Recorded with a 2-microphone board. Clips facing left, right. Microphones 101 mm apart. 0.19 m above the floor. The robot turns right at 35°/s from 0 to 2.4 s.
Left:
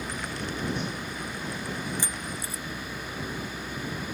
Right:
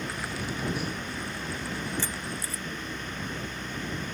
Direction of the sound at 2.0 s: 10° left (ahead or behind).